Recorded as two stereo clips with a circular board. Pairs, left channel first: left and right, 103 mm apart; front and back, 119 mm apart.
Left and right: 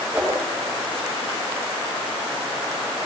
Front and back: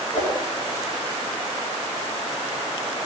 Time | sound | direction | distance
0.1 | a whoosh | 20° right | 4.5 m